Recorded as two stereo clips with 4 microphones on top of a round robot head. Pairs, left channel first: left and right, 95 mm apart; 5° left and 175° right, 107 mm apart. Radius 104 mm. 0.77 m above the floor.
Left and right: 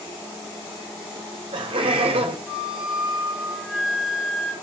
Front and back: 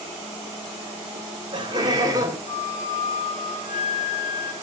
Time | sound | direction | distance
1.1 | laughter | 130° right | 3 m
2.5 | a flute | 5° right | 1.9 m